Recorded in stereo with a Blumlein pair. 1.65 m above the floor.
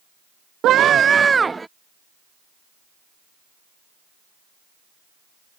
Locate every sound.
0.6 s a scream: 30° right; by 1.7 s 10° right